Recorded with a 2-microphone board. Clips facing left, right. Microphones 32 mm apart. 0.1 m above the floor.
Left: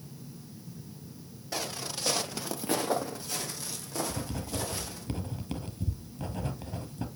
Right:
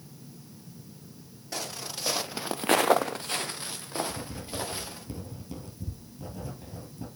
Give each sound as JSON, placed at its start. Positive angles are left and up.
{"t": 1.5, "sound": "footsteps", "side_deg": 5, "distance_m": 1.8}
{"t": 4.1, "sound": "writing", "side_deg": 55, "distance_m": 1.4}